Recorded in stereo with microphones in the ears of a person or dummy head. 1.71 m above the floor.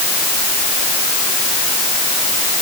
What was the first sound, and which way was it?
Only background noise.